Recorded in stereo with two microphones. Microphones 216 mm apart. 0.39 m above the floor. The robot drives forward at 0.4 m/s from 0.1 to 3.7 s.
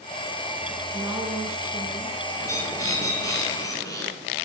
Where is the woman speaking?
10° right (ahead or behind), 3.5 m.